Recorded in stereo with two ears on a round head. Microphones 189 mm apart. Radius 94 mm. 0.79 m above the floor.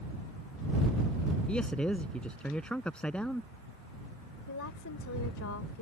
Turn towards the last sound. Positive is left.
turn(degrees=75)  # may be behind; listen again after turning